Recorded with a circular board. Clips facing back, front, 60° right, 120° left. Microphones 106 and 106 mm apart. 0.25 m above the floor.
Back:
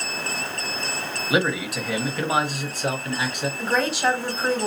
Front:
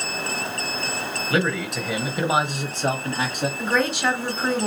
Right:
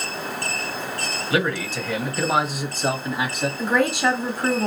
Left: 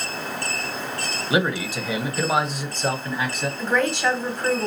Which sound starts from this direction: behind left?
A man speaking, at 1.3 s.